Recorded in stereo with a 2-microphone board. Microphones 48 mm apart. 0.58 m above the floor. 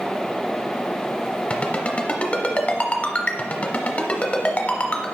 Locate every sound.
1.5 s a ringtone: 30° left (ahead or behind), 0.9 m